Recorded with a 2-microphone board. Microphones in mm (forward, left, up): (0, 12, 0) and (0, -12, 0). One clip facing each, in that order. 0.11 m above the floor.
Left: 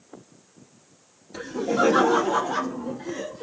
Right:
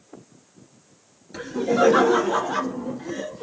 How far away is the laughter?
About 1.9 m.